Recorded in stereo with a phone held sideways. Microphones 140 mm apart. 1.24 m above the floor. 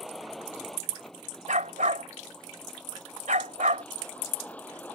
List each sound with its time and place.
0.0 s a vehicle: centre (ahead or behind); by 5.0 s 10° left (ahead or behind)
1.5 s a dog barking: 65° right (ahead or behind)